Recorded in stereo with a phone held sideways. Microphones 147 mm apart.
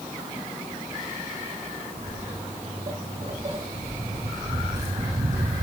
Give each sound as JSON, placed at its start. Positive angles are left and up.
{"t": 2.0, "sound": "footsteps", "side_deg": -45, "distance_m": 5.0}